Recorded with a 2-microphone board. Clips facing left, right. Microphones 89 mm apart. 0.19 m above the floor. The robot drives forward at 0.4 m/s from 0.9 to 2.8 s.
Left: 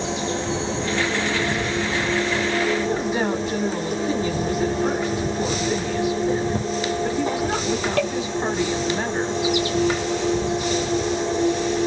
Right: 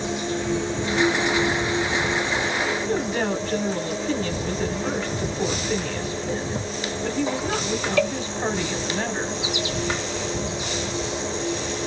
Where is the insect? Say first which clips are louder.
Left 1 dB; 75° left (ahead or behind), 1.6 m; by 11.9 s 50° left (ahead or behind), 2.0 m.